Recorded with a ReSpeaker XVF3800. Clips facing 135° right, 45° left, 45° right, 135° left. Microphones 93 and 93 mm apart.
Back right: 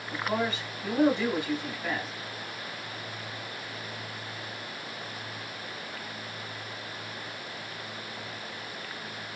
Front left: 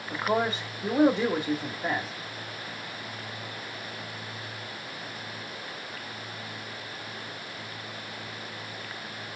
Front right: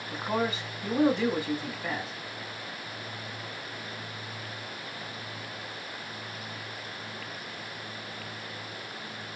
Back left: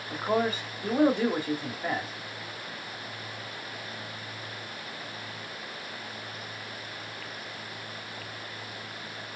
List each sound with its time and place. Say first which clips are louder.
0.1 s a man speaking: front left 3 dB, back left 3 dB; 85° left, 1.9 m